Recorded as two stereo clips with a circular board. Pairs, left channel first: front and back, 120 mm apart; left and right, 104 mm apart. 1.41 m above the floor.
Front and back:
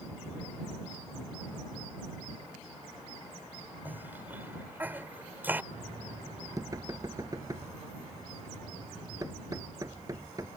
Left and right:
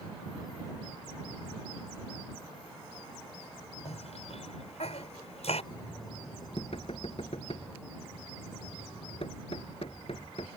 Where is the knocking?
120° left.